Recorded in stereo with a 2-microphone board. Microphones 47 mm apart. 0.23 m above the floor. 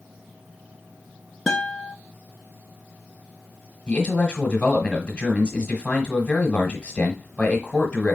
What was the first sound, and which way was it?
A guitar, 5° left (ahead or behind).